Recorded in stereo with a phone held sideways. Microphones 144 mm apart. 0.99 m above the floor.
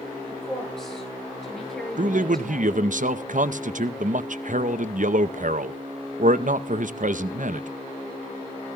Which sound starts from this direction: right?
A man speaking, at 2.0 s.